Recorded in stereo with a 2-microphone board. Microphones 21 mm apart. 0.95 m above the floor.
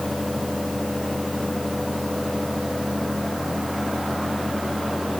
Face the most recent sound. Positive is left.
No sound to turn to.